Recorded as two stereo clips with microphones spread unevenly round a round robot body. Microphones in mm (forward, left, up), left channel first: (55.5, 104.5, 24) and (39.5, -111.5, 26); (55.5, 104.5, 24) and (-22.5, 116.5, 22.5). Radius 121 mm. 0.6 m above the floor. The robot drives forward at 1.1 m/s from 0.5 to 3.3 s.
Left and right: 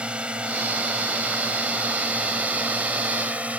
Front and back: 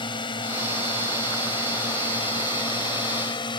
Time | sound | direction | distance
0.0 | a drone | 10° right | ?